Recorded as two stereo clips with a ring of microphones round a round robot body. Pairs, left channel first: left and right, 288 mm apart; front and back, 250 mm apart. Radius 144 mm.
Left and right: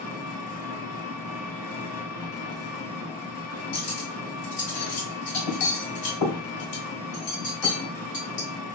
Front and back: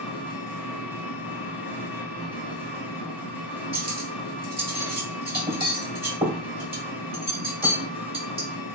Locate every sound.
0.0 s an engine running: 100° left, 2 m
3.7 s cutlery clinking: 110° left, 2 m